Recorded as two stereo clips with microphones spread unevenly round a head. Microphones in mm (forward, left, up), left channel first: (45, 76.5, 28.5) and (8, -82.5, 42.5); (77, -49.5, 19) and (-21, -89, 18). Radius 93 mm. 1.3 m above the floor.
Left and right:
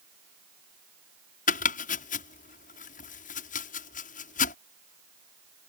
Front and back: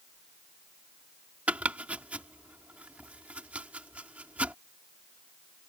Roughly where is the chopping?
Behind left.